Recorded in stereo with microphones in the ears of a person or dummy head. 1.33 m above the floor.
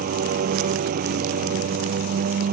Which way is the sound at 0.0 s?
40° right (ahead or behind).